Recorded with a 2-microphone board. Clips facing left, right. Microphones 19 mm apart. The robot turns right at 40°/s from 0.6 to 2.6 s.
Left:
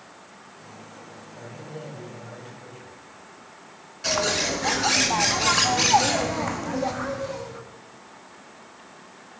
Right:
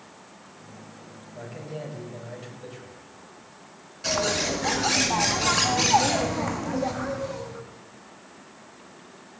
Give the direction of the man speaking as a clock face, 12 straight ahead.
5 o'clock.